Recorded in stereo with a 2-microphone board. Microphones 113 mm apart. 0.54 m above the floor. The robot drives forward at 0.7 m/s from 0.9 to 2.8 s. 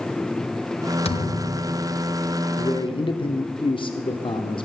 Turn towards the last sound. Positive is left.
turn(degrees=50)  # may be behind; listen again after turning